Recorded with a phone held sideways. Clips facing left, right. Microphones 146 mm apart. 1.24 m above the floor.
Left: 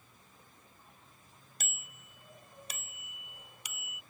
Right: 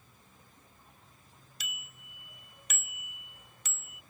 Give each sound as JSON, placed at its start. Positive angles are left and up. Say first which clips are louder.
{"t": 1.6, "sound": "a bicycle bell", "louder": "right 1 dB", "side_deg": 50}